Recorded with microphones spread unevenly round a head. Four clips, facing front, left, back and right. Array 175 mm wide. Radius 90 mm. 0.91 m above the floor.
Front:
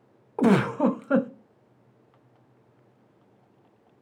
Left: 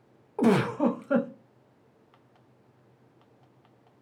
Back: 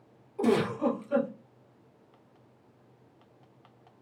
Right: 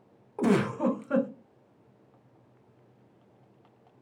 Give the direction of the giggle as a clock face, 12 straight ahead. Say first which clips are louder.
Left 2 dB, front 5 dB; 11 o'clock.